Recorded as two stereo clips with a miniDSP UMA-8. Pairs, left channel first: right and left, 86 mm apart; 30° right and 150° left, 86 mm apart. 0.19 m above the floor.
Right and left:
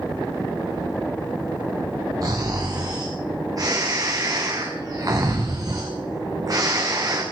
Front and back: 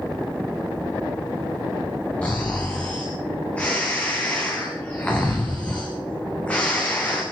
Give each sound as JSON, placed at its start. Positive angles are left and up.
{"t": 2.2, "sound": "snoring", "azimuth_deg": 45, "distance_m": 3.5}